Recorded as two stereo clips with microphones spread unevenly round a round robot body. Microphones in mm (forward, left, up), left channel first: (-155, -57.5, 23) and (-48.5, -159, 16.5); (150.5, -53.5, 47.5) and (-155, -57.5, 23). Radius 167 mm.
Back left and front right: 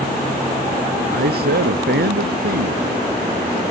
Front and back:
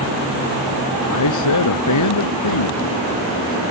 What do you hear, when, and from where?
1.1 s a man speaking: 25° right